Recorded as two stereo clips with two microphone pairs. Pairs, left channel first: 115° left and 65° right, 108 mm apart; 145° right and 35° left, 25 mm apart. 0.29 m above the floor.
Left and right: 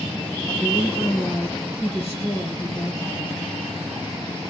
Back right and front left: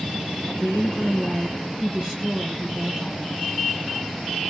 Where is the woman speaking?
100° left, 4 m.